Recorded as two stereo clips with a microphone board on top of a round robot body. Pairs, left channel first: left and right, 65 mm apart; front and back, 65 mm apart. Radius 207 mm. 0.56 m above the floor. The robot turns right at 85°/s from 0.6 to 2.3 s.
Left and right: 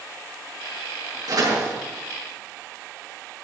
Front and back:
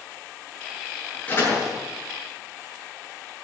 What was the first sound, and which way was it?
A door slam, 65° right.